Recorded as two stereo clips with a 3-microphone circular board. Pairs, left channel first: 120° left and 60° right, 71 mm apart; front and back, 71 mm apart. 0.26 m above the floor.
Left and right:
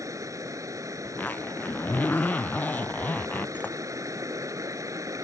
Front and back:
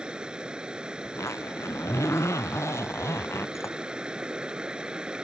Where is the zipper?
50° left.